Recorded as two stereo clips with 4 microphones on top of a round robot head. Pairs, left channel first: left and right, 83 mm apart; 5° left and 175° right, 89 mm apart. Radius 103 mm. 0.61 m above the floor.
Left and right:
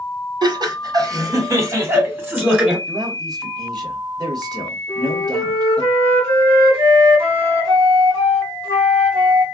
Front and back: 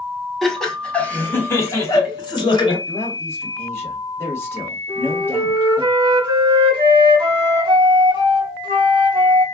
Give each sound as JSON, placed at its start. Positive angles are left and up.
{"t": 0.4, "sound": "laughter", "azimuth_deg": -85, "distance_m": 1.3}
{"t": 2.9, "sound": "a man speaking", "azimuth_deg": -60, "distance_m": 1.1}
{"t": 4.9, "sound": "a flute", "azimuth_deg": -140, "distance_m": 1.6}